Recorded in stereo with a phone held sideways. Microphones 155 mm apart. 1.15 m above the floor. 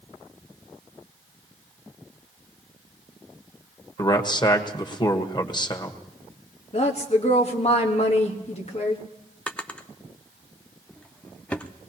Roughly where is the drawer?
Centre.